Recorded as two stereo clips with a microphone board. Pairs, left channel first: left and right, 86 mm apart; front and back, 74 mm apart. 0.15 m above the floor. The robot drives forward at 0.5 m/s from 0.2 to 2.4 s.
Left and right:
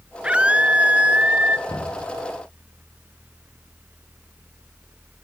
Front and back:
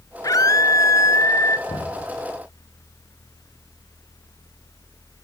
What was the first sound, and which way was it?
A scream, 15° right.